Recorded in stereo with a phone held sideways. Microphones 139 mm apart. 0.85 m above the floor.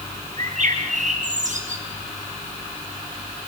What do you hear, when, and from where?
0.4 s a bird: 60° right (ahead or behind), 6 m